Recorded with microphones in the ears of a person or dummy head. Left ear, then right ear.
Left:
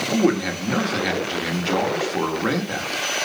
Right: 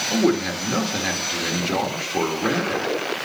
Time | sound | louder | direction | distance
0.1 | a man speaking | even | 10° left (ahead or behind) | 1.7 m